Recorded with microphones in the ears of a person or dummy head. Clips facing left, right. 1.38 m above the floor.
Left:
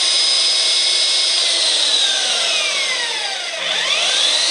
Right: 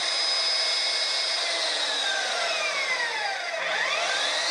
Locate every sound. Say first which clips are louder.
0.0 s an engine running: left 4 dB; 50° left (ahead or behind), 0.7 m